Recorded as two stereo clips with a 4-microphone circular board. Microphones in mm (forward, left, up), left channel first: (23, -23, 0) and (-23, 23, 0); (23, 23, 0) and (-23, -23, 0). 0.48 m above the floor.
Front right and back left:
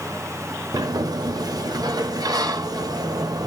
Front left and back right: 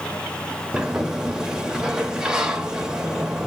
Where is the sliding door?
145° left, 0.5 m.